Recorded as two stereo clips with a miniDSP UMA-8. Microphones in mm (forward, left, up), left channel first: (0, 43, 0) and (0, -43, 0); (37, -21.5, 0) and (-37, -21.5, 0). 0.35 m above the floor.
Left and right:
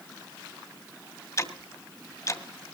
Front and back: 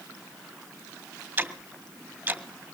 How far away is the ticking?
About 1.8 m.